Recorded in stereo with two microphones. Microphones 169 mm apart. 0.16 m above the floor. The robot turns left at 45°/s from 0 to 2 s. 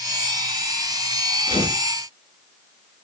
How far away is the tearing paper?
About 1.0 m.